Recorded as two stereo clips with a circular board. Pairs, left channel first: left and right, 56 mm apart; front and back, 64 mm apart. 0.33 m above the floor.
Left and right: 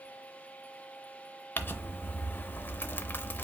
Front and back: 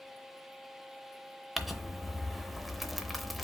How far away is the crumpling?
About 0.7 m.